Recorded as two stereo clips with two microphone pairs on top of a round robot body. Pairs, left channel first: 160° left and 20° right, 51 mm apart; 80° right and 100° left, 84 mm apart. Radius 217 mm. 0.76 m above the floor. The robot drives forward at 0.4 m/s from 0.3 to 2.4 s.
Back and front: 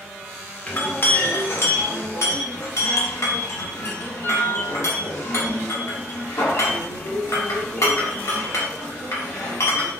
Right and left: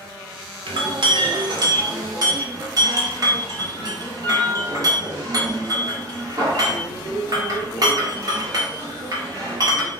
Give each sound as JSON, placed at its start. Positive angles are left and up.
{"t": 0.7, "sound": "a clink", "azimuth_deg": 100, "distance_m": 0.7}